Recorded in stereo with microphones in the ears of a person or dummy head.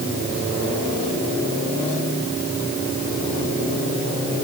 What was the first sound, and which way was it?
Only background noise.